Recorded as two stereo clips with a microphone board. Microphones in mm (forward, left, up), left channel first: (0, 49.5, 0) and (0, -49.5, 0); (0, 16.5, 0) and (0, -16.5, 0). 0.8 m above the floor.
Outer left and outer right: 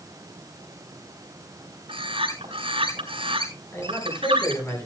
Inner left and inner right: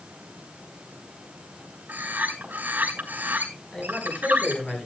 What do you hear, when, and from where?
1.9 s a bird: 75° right (ahead or behind), 4 m
3.7 s a man speaking: 30° left (ahead or behind), 8 m